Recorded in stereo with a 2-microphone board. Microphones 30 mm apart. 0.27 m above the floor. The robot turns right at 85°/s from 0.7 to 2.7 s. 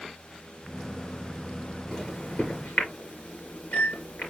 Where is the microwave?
15° left (ahead or behind), 4 m; by 4.3 s 75° left (ahead or behind), 4 m.